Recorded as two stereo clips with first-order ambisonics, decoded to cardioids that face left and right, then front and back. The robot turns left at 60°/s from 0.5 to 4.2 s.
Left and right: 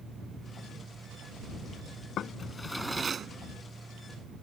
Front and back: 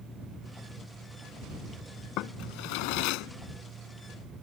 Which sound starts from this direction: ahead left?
A drawer, at 2.2 s.